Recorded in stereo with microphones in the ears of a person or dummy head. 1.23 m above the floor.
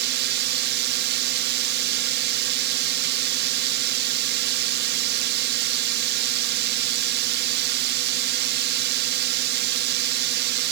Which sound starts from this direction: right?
A drone, at 0.0 s.